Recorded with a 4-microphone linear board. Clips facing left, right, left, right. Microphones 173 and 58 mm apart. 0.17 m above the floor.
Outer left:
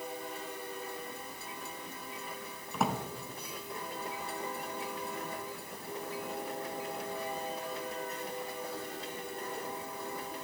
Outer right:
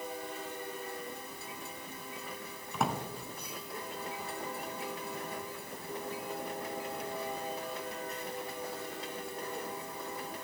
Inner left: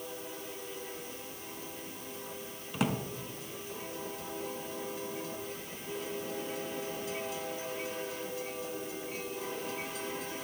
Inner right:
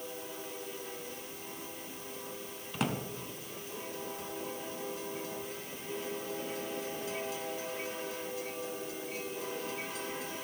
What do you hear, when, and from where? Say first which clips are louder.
2.7 s a drawer: outer left 1 dB, inner left 2 dB; centre (ahead or behind), 0.9 m